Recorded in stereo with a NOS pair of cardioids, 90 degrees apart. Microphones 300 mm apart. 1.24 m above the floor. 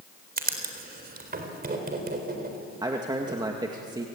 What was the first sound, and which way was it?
Writing, 30° right.